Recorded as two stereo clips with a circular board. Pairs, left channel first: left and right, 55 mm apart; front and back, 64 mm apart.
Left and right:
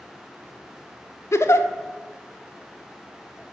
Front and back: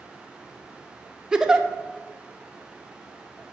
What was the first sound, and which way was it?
A giggle, 105° left.